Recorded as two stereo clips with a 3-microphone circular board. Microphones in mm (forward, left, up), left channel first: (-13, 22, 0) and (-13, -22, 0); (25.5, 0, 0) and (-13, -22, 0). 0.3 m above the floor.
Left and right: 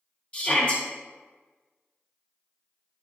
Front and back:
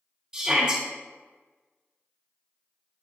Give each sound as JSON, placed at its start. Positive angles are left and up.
{"t": 0.3, "sound": "a shout", "azimuth_deg": 140, "distance_m": 1.5}